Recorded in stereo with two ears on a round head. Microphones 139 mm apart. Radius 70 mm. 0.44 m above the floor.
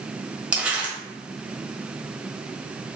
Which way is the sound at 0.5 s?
5° right (ahead or behind).